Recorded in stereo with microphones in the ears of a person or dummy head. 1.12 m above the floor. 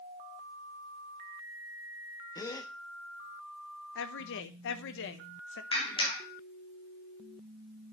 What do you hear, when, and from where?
2.4 s a gasp: 20° left (ahead or behind), 0.9 m
4.0 s a woman speaking: 65° left (ahead or behind), 0.9 m
5.7 s a clap: 30° left (ahead or behind), 1.7 m